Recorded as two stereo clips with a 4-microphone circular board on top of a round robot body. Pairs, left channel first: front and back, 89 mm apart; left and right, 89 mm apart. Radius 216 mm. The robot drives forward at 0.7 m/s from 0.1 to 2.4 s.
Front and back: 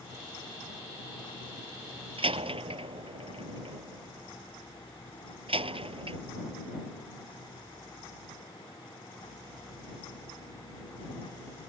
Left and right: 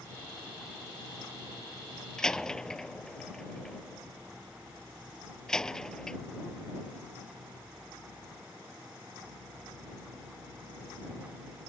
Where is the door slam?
175° left.